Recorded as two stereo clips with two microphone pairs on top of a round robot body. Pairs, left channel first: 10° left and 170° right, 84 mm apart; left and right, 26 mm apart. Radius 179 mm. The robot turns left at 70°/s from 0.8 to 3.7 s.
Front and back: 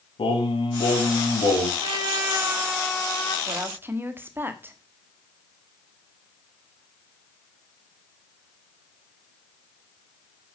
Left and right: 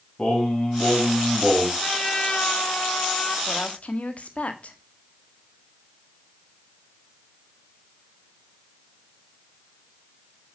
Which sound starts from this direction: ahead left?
Singing, at 0.2 s.